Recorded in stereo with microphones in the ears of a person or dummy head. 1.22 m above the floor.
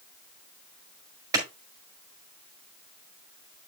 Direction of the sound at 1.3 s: 20° right (ahead or behind).